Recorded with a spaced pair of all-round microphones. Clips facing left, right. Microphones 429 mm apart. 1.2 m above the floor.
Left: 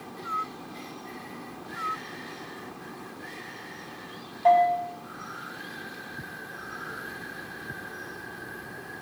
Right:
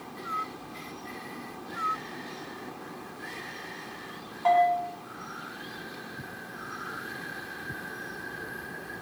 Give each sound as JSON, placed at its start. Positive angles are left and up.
{"t": 4.5, "sound": "a bell", "side_deg": -20, "distance_m": 1.8}